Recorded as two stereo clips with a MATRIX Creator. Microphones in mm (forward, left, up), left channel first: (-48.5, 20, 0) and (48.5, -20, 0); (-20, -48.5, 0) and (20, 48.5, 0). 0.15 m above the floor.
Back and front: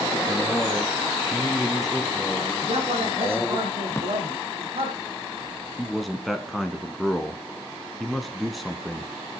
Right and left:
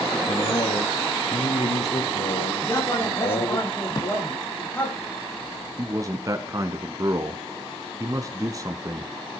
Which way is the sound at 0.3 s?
90° right.